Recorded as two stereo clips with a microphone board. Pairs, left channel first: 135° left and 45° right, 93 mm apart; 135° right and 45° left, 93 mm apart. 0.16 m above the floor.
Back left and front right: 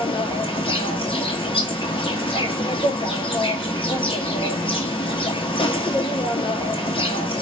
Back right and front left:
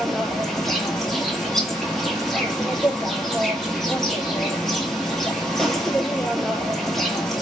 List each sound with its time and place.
0.0 s an insect: 140° left, 0.9 m